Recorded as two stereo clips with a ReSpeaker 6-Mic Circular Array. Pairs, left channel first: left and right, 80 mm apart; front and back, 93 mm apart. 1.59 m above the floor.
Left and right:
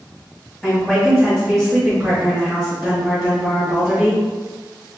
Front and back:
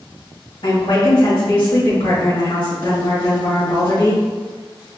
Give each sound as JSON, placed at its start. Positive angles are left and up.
{"t": 0.6, "sound": "a woman speaking", "azimuth_deg": 0, "distance_m": 2.0}